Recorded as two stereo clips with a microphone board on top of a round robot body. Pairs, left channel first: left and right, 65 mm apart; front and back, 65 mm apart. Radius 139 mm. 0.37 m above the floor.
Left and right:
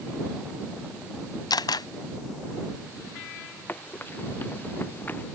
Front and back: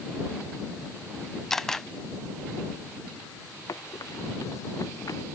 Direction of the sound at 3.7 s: 30° left.